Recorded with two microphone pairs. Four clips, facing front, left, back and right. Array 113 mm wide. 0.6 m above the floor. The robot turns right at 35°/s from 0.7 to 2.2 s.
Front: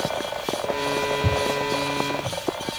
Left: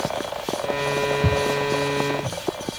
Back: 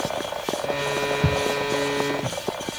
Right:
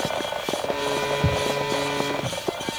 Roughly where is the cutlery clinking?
No cutlery clinking in this recording.